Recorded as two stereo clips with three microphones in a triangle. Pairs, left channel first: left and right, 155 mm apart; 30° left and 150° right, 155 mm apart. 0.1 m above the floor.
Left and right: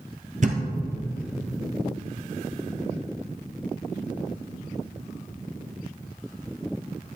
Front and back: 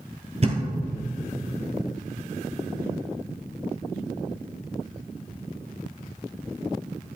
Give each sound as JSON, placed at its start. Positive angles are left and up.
{"t": 0.4, "sound": "a thud", "azimuth_deg": -110, "distance_m": 1.0}